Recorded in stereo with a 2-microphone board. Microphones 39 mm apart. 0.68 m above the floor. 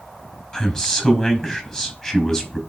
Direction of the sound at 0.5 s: 25° left (ahead or behind).